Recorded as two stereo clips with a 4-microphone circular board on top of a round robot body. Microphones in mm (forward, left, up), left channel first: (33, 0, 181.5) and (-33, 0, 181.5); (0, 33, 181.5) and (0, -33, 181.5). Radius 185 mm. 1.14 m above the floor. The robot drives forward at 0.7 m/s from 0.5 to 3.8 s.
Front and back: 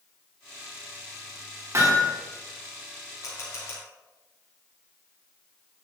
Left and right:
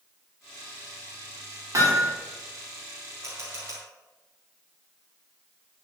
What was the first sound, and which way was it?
Hammering, 135° right.